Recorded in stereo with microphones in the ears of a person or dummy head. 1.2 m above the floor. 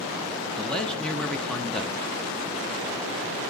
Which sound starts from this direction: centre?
A man speaking, at 0.6 s.